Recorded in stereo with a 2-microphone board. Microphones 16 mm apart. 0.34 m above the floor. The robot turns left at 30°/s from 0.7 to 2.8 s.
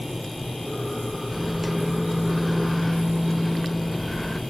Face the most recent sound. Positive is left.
turn(degrees=5)  # may be behind; listen again after turning